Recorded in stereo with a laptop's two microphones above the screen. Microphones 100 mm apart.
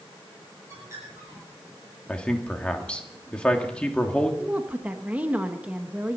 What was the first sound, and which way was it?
A bird, 30° right (ahead or behind).